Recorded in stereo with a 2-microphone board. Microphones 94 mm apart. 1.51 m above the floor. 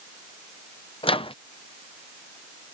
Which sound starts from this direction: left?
A microwave, at 1.0 s.